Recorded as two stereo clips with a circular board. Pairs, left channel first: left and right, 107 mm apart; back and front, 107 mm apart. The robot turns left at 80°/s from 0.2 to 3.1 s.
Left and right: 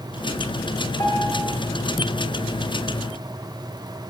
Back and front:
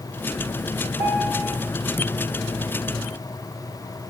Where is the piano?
160° left, 2.5 m; by 1.5 s 115° left, 2.5 m.